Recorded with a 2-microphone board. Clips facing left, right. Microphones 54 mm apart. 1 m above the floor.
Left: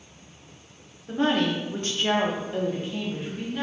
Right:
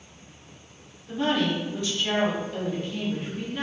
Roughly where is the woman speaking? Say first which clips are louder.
Left 1 dB; left.